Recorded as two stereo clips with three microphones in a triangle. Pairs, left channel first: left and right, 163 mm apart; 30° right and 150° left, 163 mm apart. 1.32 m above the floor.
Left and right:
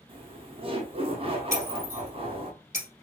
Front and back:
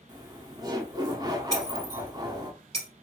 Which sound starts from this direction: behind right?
Laughter, at 0.1 s.